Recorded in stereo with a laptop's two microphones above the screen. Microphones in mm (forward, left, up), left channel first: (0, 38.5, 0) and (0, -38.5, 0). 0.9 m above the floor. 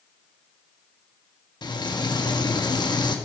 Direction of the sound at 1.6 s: 70° left (ahead or behind).